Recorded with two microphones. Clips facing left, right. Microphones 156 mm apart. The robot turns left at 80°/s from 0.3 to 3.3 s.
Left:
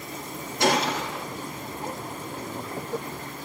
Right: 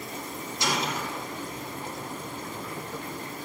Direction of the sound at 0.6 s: 125° left.